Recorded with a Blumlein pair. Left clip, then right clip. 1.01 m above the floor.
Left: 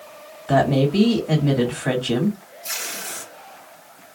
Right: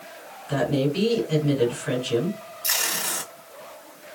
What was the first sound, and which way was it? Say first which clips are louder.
A woman speaking: left 6 dB; 45° left.